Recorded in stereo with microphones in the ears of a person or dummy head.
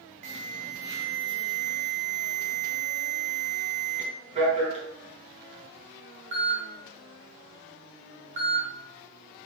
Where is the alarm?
40° right (ahead or behind), 2.5 m.